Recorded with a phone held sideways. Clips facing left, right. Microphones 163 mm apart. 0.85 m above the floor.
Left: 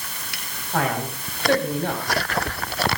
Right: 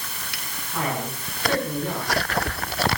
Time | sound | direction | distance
0.7 | a man speaking | 85° left | 6 m